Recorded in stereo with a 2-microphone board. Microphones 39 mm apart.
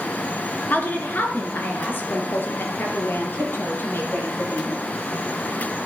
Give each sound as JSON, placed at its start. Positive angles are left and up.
{"t": 0.7, "sound": "a woman speaking", "side_deg": 45, "distance_m": 2.5}